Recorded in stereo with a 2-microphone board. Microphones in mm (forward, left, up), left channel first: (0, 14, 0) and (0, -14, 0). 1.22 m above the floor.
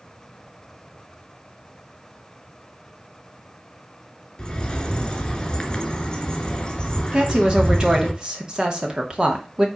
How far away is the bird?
About 2.5 m.